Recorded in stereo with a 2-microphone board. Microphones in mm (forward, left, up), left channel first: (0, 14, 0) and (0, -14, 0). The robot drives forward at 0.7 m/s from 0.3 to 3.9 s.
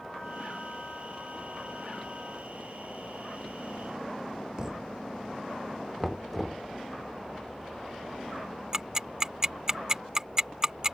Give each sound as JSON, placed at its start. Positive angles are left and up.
{"t": 4.6, "sound": "a thud", "side_deg": -25}
{"t": 6.0, "sound": "knocking", "side_deg": 5}
{"t": 8.7, "sound": "ticking", "side_deg": -20}